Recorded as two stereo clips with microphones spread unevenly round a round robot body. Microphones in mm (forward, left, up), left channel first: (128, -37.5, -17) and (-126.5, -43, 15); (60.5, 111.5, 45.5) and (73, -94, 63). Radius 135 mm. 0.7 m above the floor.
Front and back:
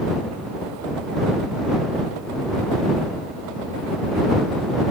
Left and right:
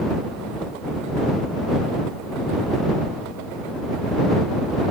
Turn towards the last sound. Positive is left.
No sound to turn to.